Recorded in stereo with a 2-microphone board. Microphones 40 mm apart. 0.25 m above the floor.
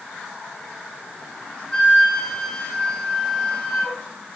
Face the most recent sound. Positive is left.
turn(degrees=10)  # may be behind; listen again after turning